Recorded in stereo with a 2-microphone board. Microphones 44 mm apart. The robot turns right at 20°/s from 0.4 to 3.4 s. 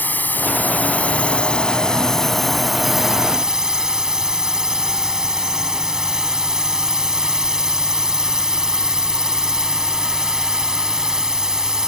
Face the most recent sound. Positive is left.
turn(degrees=-160)